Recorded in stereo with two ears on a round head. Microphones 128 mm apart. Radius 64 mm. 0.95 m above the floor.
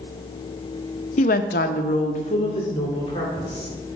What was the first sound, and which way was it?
A woman speaking, 50° left (ahead or behind).